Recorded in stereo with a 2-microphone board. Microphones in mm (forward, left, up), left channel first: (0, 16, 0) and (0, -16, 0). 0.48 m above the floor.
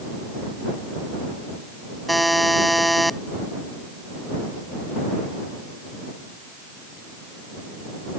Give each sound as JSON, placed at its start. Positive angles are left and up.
{"t": 2.1, "sound": "a buzzer", "side_deg": 0}